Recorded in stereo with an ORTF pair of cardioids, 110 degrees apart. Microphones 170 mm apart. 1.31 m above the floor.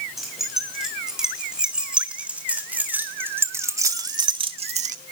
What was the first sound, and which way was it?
Keys jangling, straight ahead.